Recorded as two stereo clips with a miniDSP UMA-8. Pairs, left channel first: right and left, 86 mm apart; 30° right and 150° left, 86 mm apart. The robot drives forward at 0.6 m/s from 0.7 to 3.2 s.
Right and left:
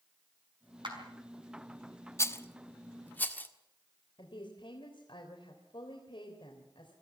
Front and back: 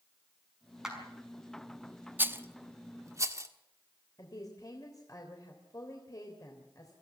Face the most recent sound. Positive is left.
turn(degrees=-75)